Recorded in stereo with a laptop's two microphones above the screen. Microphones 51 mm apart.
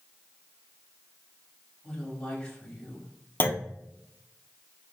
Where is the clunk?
40° left (ahead or behind), 0.5 m.